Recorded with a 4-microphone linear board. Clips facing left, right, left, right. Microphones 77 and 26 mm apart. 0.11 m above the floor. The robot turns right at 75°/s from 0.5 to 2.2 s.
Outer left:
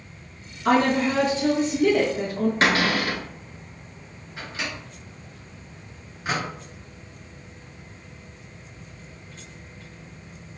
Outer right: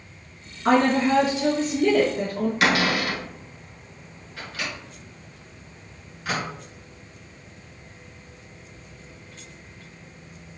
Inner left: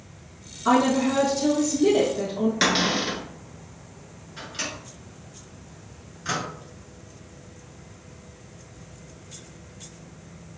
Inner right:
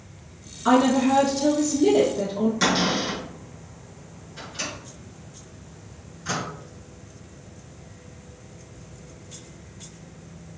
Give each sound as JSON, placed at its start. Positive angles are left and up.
{"t": 0.7, "sound": "a woman speaking", "side_deg": -25, "distance_m": 1.4}
{"t": 2.6, "sound": "a cupboard door", "side_deg": 35, "distance_m": 1.3}
{"t": 4.4, "sound": "a microwave", "side_deg": 25, "distance_m": 1.5}